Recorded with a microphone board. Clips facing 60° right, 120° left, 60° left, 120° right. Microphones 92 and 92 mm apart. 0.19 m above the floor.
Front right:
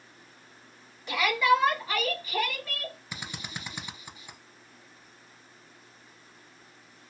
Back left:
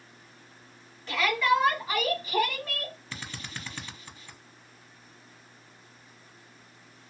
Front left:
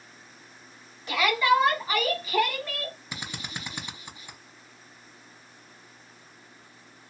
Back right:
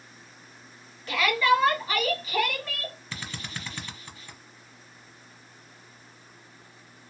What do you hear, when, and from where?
1.1 s a shout: 5° left, 1.2 m; by 3.0 s 150° left, 1.4 m
3.1 s a drill: 5° left, 0.5 m